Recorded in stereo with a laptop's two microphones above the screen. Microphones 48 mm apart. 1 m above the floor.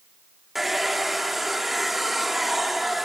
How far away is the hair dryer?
About 0.9 m.